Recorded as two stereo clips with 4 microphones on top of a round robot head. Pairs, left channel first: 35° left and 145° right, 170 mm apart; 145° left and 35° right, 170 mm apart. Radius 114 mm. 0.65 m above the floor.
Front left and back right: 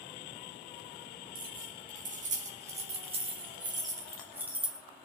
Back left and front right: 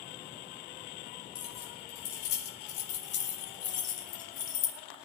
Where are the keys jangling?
175° left, 6 m; by 4.8 s 130° left, 4 m.